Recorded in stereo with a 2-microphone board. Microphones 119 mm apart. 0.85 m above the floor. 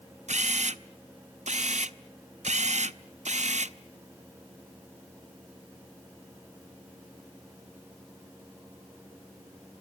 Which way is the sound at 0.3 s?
75° right (ahead or behind).